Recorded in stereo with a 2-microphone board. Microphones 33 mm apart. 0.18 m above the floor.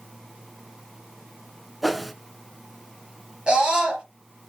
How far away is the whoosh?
About 0.6 m.